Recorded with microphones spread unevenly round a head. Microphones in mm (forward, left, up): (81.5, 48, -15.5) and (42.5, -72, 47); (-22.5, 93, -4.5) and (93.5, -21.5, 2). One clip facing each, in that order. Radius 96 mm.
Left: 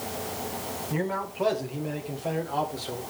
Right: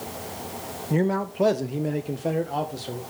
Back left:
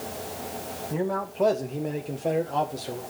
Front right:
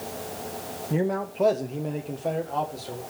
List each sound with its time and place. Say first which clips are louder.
0.9 s a man speaking: right 7 dB, front right 3 dB; 110° right, 0.7 m; by 3.0 s 150° right, 1.8 m